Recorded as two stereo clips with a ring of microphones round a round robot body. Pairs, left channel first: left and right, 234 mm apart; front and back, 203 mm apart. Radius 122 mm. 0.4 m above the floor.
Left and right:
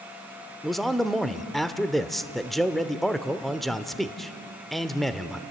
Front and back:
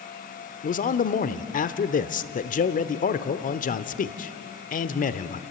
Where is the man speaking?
Straight ahead, 0.9 m.